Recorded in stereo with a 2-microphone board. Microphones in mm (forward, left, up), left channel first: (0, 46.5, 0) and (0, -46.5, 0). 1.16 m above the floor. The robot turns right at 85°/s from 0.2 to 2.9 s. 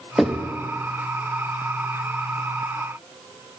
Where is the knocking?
Centre (ahead or behind), 0.6 m; by 0.5 s 20° left (ahead or behind), 0.6 m.